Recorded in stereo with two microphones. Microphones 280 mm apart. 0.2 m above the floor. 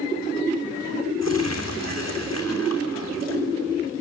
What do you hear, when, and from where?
1.2 s crumpling: 65° left (ahead or behind), 3 m